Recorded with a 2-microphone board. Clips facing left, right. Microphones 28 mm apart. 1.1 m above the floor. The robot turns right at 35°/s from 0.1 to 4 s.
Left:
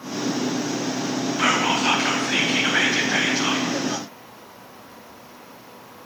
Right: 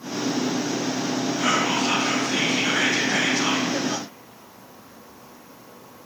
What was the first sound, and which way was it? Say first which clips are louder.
Whispering: left 3 dB; 95° left.